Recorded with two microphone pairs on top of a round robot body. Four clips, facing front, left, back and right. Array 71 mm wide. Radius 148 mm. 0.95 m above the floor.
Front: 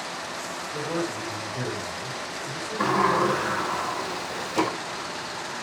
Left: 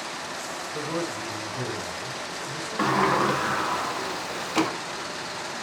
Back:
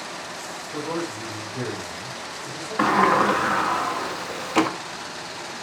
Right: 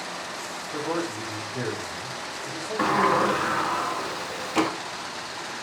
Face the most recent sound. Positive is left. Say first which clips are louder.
# right 1 dB, back 4 dB
turn(degrees=180)